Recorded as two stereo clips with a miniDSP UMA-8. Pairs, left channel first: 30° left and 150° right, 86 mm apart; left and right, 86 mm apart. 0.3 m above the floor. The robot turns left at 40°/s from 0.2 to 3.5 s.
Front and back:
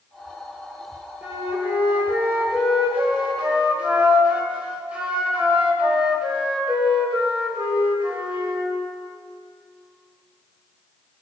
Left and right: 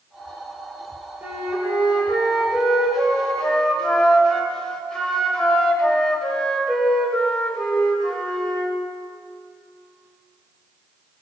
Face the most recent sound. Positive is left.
turn(degrees=160)